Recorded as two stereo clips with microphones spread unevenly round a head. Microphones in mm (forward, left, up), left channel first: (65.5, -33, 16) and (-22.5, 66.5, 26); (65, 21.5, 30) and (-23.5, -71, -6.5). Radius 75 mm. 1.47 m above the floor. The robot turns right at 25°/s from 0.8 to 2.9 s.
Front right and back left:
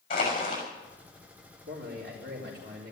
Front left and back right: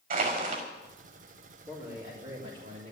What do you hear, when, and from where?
0.1 s crushing: 105° right, 6.5 m
1.7 s a man speaking: 160° left, 4 m; by 2.9 s 170° right, 4 m